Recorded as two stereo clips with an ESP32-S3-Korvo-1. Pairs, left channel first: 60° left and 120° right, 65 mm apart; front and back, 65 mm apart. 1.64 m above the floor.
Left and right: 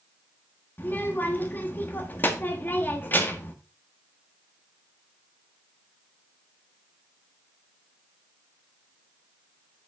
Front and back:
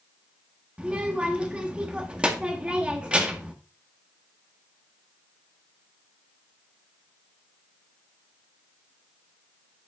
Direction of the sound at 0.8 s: 110° left.